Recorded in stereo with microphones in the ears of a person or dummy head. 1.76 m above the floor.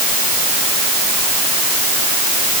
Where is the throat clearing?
I don't hear throat clearing.